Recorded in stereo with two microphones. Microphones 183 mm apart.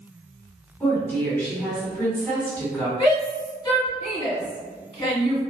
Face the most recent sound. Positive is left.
turn(degrees=25)  # may be behind; listen again after turning